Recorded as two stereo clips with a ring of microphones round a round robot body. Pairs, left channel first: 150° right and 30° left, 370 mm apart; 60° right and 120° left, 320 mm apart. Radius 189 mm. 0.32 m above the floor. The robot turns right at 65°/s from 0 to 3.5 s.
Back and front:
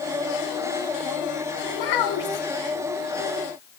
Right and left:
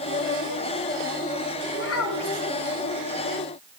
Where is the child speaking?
130° right, 2 m; by 2.5 s 80° right, 2 m.